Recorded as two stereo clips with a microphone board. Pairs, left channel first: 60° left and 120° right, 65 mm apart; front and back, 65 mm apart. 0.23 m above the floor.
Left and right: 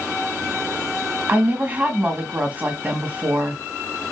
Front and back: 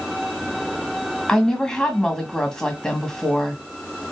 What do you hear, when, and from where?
1.3 s a woman speaking: 75° right, 1.5 m